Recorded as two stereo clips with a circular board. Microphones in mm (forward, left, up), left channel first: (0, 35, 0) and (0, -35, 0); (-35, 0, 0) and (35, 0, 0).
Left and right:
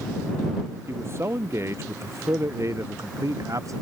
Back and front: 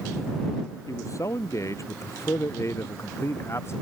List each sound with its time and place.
0.9 s a man speaking: 140° right; by 3.8 s 130° right